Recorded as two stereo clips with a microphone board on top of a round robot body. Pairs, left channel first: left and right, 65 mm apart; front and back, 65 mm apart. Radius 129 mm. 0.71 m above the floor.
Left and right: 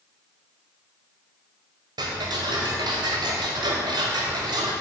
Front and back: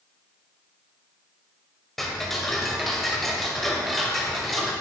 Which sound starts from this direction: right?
Ticking, at 2.0 s.